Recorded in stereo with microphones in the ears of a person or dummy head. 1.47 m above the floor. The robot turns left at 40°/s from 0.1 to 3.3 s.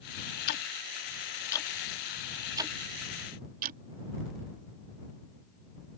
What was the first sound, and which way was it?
Ticking, 60° left (ahead or behind).